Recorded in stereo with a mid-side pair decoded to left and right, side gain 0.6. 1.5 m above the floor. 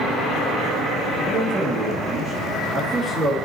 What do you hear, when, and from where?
1.2 s a man speaking: 20° right, 3 m